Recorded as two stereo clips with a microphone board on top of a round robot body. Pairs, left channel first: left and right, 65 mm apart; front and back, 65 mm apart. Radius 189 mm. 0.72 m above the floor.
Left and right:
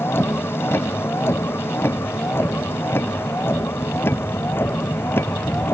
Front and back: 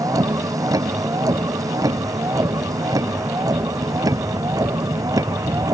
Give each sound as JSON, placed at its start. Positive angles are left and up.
{"t": 0.0, "sound": "a vehicle", "azimuth_deg": 145}